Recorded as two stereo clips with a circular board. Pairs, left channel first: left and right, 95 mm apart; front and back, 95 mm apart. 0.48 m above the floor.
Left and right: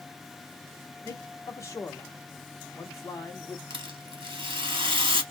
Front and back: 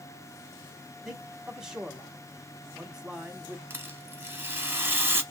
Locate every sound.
1.1 s a man speaking: 100° left, 1.3 m
3.7 s a rattle: 110° right, 1.0 m